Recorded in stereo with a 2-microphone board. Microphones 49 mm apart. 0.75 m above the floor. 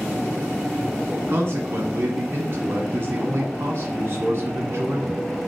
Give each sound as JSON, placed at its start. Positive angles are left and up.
{"t": 1.3, "sound": "a man speaking", "side_deg": -60, "distance_m": 1.3}